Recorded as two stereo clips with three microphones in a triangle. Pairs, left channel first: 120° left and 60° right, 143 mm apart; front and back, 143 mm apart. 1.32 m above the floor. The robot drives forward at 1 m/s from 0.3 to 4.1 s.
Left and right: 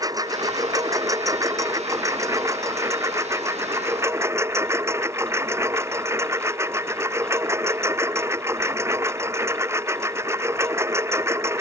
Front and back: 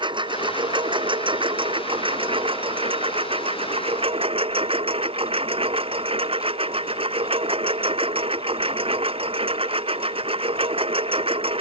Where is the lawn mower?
125° right; by 11.6 s 130° right.